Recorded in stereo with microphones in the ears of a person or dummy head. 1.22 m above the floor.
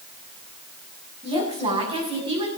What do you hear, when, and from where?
1.2 s a woman speaking: 35° right (ahead or behind), 7.5 m; by 2.5 s 30° right (ahead or behind), 7 m